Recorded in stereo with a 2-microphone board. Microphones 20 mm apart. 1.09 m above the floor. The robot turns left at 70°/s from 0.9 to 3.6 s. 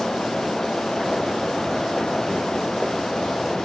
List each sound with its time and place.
Only background noise.